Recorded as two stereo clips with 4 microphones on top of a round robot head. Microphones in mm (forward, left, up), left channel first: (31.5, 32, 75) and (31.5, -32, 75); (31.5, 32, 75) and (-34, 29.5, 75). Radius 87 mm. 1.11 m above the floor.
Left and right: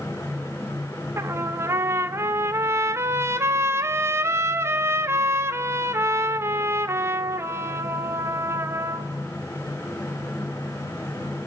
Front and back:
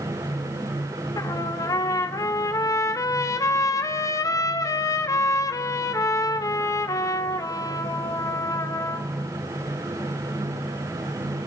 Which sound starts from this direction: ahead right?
A trumpet, at 1.2 s.